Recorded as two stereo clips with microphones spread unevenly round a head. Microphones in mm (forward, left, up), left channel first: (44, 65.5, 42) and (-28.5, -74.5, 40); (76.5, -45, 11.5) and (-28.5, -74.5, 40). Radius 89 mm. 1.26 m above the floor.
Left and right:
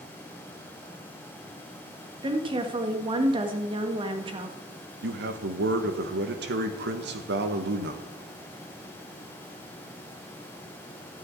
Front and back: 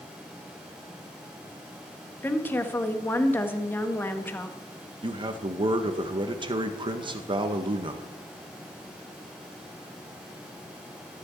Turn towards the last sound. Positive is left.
turn(degrees=-115)